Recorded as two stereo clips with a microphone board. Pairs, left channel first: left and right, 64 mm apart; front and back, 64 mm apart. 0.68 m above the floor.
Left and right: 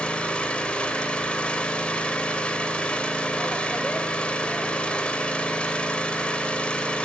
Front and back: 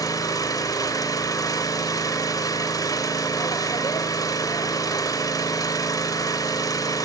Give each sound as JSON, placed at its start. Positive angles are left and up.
{"t": 0.0, "sound": "an engine running", "azimuth_deg": 15, "distance_m": 2.5}